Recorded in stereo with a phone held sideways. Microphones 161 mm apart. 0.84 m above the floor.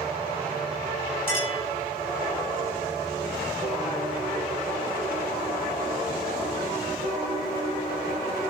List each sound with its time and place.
1.3 s a clink: 70° right (ahead or behind), 7 m